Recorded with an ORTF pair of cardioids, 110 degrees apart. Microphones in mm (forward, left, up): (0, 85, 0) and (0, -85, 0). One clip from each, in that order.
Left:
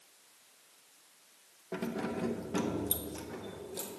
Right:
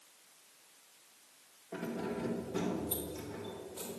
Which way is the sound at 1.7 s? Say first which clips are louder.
Left 2 dB; 55° left.